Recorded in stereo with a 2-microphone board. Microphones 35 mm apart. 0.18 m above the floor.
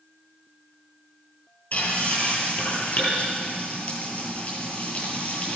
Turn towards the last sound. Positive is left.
turn(degrees=45)  # may be behind; listen again after turning